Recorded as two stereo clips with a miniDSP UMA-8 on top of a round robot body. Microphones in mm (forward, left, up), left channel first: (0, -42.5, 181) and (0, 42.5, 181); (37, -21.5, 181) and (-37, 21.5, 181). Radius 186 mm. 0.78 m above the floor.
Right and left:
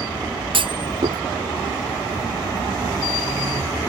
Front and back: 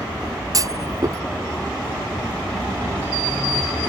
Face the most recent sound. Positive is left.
turn(degrees=100)